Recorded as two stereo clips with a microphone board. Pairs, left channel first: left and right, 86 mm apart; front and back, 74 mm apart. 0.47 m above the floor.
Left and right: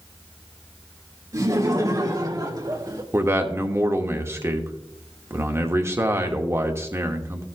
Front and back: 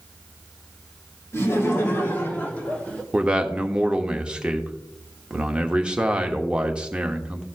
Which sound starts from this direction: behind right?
A man speaking, at 3.1 s.